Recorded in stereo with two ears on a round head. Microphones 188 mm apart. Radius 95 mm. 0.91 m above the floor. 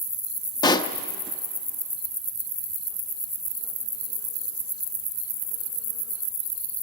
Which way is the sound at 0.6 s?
20° left (ahead or behind).